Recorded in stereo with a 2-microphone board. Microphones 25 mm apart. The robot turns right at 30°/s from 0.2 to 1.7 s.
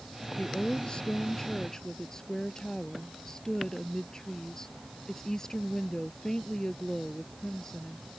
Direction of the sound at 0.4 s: 110° left.